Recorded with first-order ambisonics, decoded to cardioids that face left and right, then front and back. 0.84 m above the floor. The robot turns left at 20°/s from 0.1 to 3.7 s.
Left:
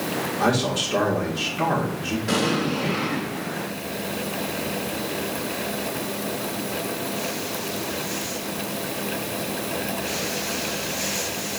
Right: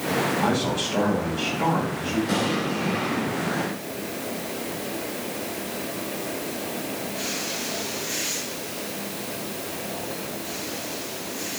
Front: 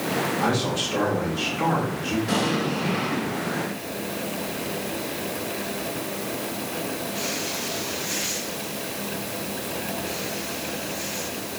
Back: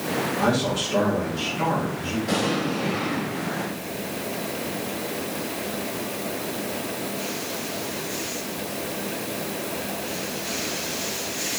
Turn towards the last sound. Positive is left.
turn(degrees=65)